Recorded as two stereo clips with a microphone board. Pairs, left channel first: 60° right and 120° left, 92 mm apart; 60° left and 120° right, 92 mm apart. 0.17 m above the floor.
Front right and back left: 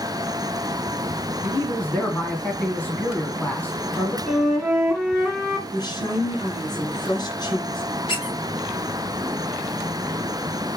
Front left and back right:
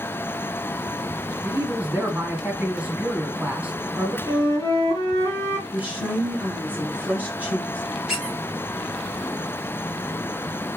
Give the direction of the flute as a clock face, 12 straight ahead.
11 o'clock.